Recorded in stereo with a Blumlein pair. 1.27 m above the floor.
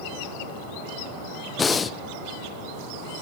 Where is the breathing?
15° left, 0.6 m.